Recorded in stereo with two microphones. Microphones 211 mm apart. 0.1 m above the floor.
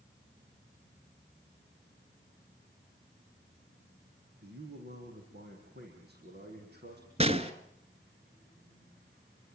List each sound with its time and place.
4.4 s a man speaking: 50° right (ahead or behind), 6 m
7.2 s a gunshot: 30° right (ahead or behind), 1.2 m